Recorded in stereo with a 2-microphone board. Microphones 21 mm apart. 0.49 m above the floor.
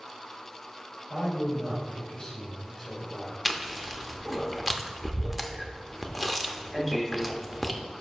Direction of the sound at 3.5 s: 10° right (ahead or behind).